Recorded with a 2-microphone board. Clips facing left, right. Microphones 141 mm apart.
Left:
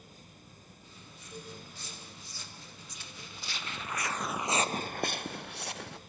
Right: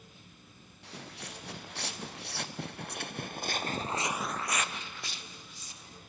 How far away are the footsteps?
About 3 m.